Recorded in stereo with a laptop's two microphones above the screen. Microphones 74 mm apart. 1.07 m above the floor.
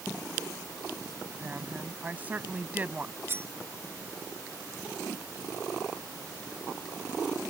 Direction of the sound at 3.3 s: 35° right (ahead or behind).